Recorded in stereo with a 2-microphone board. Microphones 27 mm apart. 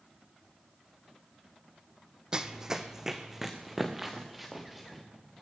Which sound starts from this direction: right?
Running footsteps, at 2.3 s.